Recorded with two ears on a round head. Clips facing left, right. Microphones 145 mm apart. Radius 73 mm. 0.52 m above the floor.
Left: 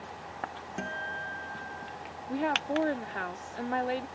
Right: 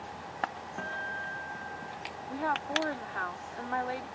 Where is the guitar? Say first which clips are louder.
Left 2 dB; 20° left (ahead or behind).